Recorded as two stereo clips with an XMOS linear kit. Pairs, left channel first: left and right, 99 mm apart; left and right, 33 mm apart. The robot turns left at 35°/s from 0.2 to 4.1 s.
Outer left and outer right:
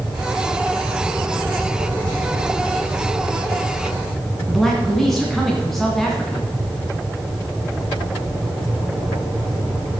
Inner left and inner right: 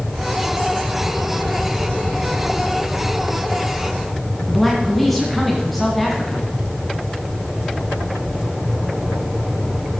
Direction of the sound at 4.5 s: Centre (ahead or behind).